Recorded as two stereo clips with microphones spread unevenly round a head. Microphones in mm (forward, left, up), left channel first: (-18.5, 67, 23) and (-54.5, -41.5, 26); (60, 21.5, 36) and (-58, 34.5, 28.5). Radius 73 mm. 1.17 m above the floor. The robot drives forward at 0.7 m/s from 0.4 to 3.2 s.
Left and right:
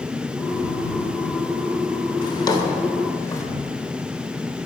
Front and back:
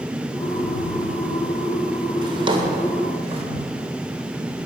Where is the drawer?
120° left, 2.5 m; by 3.4 s 135° left, 2.5 m.